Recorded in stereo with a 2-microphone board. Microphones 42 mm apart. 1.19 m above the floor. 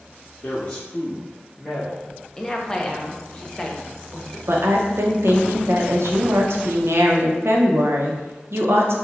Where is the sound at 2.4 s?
15° left (ahead or behind), 0.5 m.